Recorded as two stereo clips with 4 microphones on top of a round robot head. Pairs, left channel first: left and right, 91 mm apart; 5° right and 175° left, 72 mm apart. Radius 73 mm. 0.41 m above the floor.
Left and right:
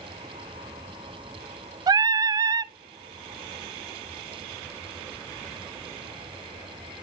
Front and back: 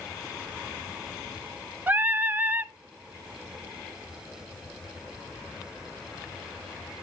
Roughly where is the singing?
Behind right.